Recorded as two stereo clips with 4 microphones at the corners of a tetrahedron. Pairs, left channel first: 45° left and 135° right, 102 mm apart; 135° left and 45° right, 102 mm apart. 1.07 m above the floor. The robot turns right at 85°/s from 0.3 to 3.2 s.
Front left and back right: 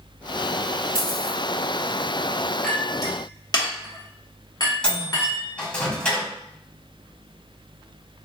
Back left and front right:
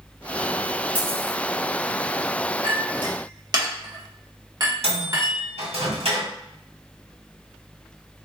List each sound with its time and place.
0.9 s a dropped coin: 115° right, 0.9 m; by 1.4 s 75° right, 0.9 m
2.6 s a clink: 45° right, 1.0 m; by 5.5 s straight ahead, 1.0 m
4.8 s a microwave: 35° right, 1.7 m